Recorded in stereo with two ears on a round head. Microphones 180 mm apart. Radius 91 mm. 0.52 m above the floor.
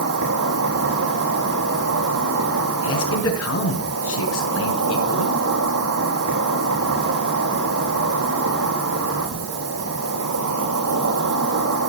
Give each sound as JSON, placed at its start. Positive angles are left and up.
{"t": 0.0, "sound": "an insect", "side_deg": -85, "distance_m": 4.0}
{"t": 2.8, "sound": "a man speaking", "side_deg": 75, "distance_m": 5.0}